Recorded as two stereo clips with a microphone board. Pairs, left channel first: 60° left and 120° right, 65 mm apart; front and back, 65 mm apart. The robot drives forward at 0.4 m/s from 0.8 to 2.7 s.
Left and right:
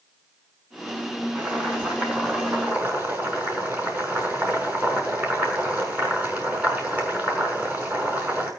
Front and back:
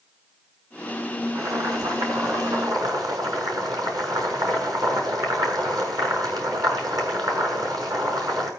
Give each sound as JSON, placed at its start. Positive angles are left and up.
{"t": 1.4, "sound": "boiling", "azimuth_deg": 170, "distance_m": 5.5}